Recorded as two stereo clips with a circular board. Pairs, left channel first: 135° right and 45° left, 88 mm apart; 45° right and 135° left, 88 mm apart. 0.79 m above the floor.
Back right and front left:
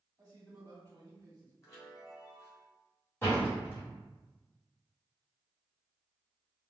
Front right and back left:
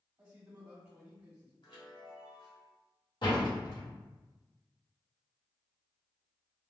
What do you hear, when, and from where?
0.2 s a man speaking: 75° left, 1.7 m
1.6 s a chime: 75° right, 1.9 m
3.2 s a door slam: 75° right, 1.7 m